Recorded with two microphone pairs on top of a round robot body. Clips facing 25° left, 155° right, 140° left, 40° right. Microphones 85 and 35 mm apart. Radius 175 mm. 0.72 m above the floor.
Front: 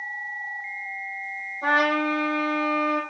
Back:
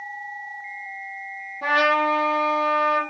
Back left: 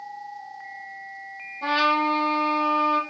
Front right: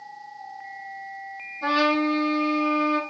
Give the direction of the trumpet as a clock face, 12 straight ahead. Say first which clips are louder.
Back 2 dB, even; 5 o'clock.